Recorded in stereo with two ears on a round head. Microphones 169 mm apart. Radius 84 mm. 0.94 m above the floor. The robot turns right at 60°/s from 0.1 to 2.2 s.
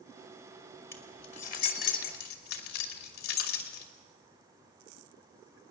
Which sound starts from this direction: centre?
Keys jangling, at 0.9 s.